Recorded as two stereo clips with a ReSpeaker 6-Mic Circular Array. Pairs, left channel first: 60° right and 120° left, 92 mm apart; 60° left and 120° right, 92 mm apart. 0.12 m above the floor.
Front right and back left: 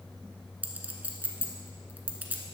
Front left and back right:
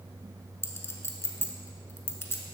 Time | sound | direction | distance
0.6 | a clink | 75° left | 0.8 m